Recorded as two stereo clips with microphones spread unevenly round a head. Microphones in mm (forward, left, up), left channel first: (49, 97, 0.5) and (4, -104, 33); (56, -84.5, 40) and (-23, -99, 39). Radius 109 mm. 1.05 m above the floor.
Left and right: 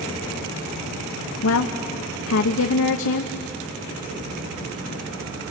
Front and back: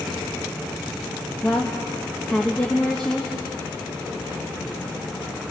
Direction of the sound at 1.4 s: 95° left.